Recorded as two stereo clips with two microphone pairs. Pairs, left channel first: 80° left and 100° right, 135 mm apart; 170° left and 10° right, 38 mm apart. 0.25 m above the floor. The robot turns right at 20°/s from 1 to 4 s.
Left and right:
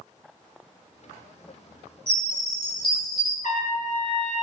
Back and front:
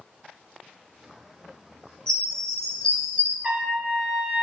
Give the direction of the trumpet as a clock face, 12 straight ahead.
10 o'clock.